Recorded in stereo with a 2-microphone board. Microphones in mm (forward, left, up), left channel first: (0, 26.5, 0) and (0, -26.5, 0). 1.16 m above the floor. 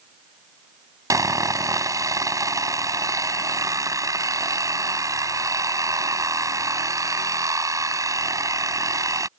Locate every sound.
1.1 s sawing: 85° right